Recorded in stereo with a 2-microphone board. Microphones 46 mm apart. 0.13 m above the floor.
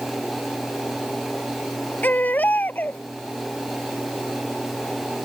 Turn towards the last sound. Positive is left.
turn(degrees=40)  # may be behind; listen again after turning